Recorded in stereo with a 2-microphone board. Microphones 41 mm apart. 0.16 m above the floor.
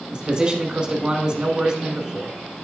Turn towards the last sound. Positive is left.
turn(degrees=-25)  # may be behind; listen again after turning